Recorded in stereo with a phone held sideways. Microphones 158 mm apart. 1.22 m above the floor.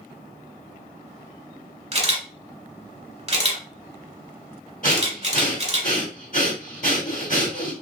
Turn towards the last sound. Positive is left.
turn(degrees=60)  # may be behind; listen again after turning